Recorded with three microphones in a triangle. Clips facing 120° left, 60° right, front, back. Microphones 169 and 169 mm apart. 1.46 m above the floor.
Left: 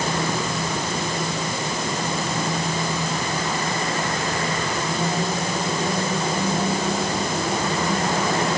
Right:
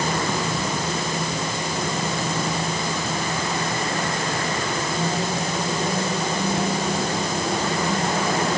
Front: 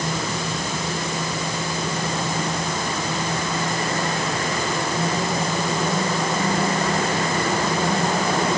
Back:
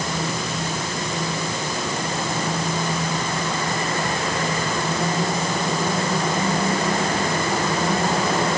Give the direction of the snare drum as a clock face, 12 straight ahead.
No snare drum in this recording.